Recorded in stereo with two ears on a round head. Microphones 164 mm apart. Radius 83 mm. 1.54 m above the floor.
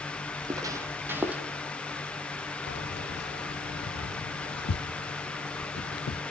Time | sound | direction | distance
0.3 | footsteps | 25° right (ahead or behind) | 2.5 m
2.7 | keys jangling | 60° left (ahead or behind) | 1.1 m